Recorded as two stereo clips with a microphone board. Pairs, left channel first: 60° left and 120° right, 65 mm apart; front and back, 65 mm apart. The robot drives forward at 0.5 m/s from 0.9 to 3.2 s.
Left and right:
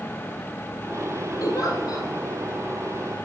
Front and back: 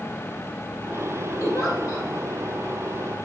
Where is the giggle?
35° left, 3.5 m; by 2.1 s 40° left, 3 m.